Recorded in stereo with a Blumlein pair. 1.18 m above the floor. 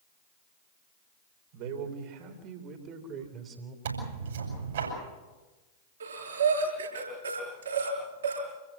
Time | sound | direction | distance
1.5 | a man speaking | 45° right | 4 m
3.9 | tearing paper | 60° right | 7.5 m
6.0 | breathing | 70° right | 8.5 m